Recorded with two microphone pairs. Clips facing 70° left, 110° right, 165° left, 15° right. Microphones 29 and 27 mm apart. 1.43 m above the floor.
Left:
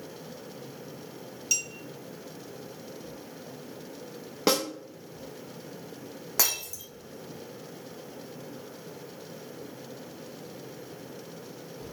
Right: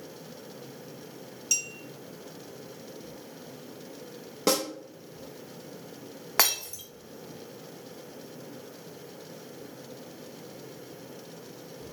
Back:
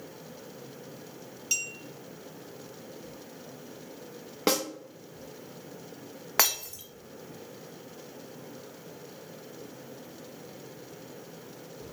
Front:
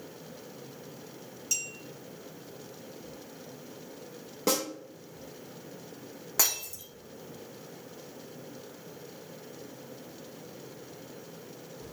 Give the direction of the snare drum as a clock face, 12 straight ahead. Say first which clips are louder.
Left 1 dB, back 2 dB; 7 o'clock.